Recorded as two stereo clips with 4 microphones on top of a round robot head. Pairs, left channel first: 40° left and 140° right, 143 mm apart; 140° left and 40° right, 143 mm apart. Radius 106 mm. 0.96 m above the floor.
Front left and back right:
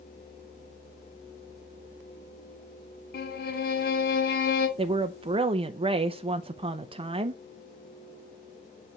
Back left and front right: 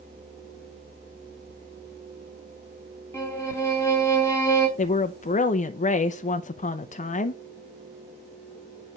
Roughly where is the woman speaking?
Behind.